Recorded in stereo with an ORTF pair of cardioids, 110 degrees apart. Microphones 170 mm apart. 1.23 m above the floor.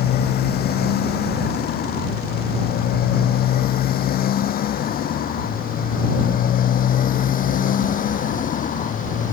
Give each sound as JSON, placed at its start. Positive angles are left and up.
{"t": 0.0, "sound": "a motorcycle", "azimuth_deg": 70}